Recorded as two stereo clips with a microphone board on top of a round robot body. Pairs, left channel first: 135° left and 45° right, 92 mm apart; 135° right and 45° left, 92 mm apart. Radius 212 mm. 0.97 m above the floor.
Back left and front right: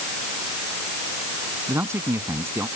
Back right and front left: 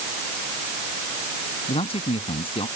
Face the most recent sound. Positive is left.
turn(degrees=-110)